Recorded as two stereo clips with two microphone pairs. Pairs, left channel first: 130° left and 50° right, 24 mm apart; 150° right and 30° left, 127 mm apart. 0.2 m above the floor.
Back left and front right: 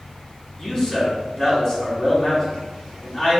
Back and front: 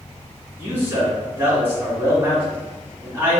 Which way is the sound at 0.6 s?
95° left.